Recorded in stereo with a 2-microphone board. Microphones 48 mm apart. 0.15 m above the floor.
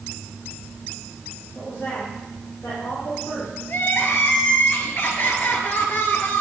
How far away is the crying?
About 1.9 m.